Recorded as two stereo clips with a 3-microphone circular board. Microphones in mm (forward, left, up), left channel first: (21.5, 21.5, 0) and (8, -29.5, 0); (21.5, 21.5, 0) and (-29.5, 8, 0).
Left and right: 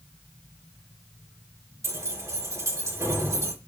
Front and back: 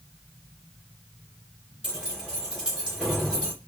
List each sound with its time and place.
1.8 s keys jangling: 95° right, 3 m